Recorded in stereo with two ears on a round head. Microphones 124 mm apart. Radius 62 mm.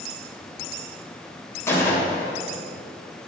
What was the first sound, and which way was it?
A gunshot, 20° left (ahead or behind).